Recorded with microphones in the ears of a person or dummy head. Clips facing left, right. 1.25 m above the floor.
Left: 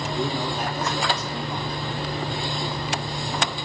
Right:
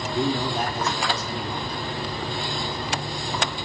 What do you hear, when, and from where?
0.1 s a man speaking: 55° right (ahead or behind), 1.3 m